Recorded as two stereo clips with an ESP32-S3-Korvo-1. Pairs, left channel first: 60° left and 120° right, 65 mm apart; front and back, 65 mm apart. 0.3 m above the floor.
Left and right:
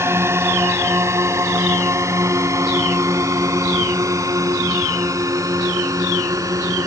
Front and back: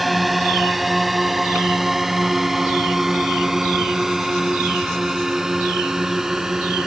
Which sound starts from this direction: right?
A drone, at 0.0 s.